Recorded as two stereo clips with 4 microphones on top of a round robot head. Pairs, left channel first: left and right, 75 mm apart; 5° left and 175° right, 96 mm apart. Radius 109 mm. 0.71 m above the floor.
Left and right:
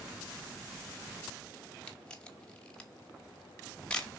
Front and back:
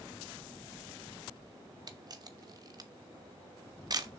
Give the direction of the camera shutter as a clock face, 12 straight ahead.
7 o'clock.